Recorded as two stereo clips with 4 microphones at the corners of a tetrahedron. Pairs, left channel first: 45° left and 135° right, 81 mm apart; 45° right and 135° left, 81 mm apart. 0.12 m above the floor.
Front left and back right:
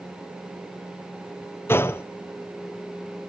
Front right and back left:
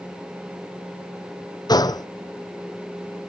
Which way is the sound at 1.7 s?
15° right.